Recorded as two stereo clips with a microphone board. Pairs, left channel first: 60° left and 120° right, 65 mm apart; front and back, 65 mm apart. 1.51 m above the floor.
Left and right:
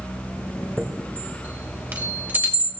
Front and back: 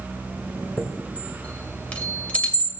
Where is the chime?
65° right, 2 m.